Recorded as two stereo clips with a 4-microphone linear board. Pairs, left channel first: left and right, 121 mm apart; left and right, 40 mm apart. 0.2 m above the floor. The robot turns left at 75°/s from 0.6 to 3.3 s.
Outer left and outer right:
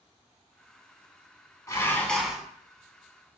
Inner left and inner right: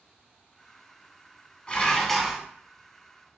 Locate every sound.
1.7 s dishes clattering: 40° left, 0.9 m; by 2.4 s 15° right, 0.9 m